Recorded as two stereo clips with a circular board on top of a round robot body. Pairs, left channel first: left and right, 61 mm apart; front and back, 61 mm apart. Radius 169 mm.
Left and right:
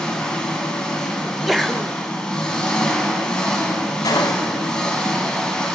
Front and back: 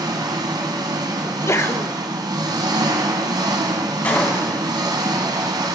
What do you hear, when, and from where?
0.0 s an engine running: 170° left, 1.1 m
1.2 s a sneeze: straight ahead, 1.0 m
4.0 s a gunshot: 70° left, 0.9 m